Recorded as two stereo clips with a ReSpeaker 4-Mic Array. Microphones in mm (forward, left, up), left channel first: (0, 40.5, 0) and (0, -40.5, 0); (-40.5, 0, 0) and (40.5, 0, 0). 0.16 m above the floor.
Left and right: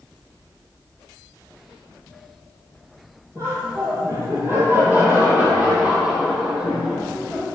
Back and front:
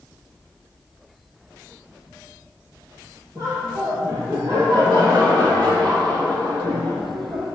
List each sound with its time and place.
3.4 s laughter: 45° right, 5 m; by 7.5 s straight ahead, 5 m